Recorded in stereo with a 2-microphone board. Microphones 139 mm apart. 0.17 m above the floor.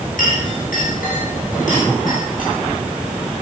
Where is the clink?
75° left (ahead or behind), 8 m.